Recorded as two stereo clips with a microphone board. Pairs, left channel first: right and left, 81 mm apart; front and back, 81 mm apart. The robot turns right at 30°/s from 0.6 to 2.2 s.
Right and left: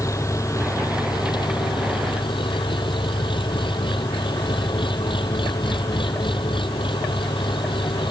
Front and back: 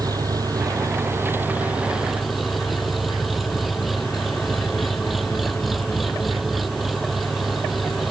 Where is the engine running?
140° right; by 8.1 s 90° right.